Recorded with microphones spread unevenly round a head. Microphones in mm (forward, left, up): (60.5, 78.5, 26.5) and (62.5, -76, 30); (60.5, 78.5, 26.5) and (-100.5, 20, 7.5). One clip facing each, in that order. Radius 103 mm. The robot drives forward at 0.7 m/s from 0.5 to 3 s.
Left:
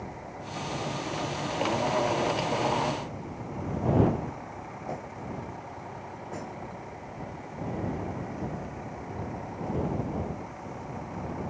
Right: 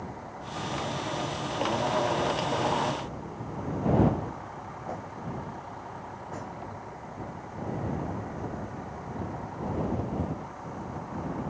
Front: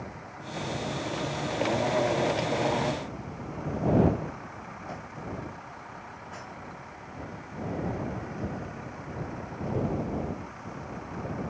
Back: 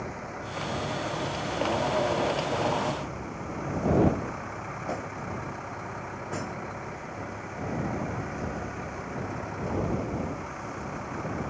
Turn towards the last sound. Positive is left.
turn(degrees=170)